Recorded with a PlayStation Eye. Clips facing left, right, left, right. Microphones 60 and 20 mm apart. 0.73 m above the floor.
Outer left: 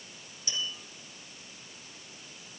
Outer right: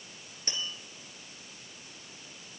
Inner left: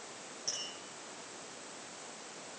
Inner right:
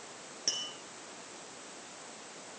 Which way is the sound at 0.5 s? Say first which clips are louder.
Outer left 2 dB, inner right 5 dB; 45° right (ahead or behind).